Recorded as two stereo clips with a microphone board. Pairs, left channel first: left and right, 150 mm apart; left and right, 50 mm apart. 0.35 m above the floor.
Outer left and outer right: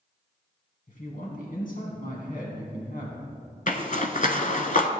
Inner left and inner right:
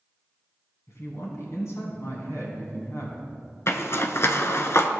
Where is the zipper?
60° left (ahead or behind), 0.8 m.